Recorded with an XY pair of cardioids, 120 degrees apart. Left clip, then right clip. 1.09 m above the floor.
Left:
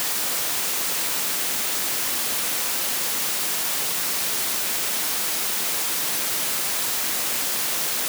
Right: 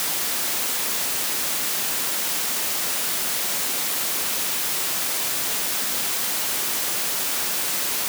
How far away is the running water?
No running water in this recording.